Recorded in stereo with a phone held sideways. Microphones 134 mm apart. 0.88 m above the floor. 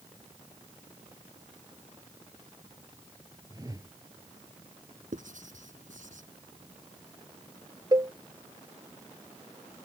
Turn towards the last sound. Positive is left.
turn(degrees=-30)  # may be behind; listen again after turning